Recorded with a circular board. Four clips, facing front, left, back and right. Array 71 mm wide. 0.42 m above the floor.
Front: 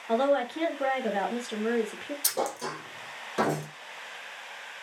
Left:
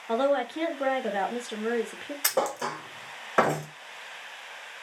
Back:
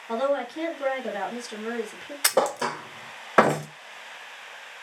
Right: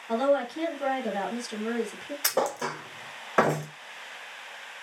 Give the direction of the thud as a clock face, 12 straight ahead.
6 o'clock.